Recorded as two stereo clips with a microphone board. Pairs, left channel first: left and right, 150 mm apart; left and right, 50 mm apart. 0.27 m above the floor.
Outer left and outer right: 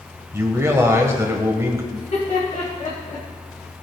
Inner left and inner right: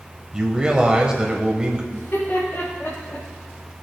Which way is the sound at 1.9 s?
55° left (ahead or behind).